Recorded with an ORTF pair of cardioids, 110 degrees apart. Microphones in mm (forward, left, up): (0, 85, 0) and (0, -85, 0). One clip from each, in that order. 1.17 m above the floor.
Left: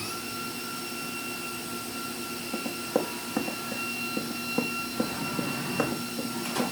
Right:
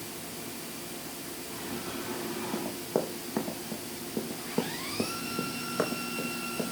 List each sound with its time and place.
2.5 s running footsteps: 5° right, 4.5 m